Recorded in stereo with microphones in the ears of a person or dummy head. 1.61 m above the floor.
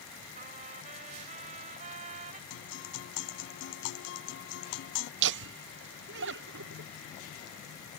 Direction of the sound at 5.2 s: 60° right (ahead or behind).